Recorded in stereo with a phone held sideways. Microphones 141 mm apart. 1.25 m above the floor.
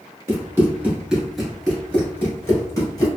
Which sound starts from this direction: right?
Running footsteps, at 0.3 s.